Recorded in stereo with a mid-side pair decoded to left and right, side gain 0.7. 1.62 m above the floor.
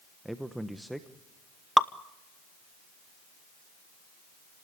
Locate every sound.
0.2 s a man speaking: 5° right, 1.2 m
1.8 s dripping: straight ahead, 0.9 m